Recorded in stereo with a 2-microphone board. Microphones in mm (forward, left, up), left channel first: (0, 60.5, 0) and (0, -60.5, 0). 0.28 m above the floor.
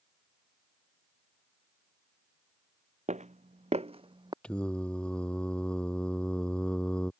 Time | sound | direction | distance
3.1 | footsteps | 75° right (ahead or behind) | ?
4.4 | singing | 10° left (ahead or behind) | ?